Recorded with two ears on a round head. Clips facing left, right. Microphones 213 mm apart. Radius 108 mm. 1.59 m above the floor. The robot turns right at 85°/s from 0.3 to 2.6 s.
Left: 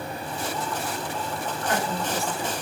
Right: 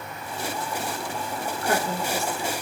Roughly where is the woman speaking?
Ahead right.